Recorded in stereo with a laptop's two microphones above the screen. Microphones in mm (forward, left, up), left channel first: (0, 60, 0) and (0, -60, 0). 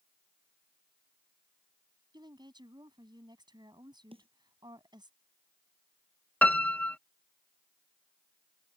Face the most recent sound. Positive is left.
turn(degrees=15)  # may be behind; listen again after turning